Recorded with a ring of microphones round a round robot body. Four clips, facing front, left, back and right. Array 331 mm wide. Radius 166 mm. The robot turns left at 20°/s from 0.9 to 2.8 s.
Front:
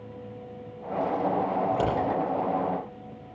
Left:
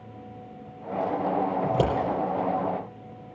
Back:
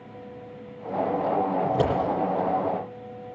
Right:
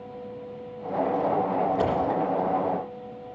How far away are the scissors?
About 6.5 m.